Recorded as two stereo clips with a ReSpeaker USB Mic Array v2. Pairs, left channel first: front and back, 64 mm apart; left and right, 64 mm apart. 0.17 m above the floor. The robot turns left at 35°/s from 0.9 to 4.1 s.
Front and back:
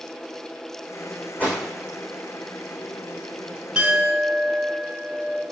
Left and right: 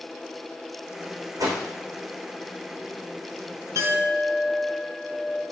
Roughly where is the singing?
I don't hear singing.